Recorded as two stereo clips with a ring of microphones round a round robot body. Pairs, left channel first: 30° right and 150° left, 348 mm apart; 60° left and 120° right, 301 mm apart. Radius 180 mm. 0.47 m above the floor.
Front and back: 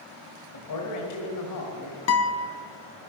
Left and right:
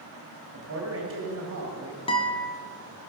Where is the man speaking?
70° right, 2.5 m.